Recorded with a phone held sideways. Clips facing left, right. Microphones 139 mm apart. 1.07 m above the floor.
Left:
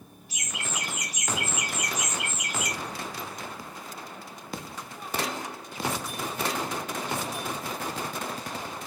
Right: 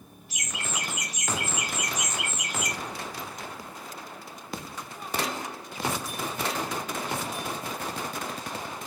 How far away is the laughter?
About 1.5 m.